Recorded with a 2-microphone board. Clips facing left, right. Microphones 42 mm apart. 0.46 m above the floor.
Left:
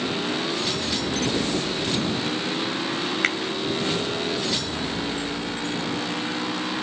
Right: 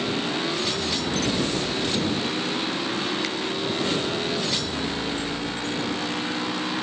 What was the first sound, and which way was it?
A finger snap, 55° left (ahead or behind).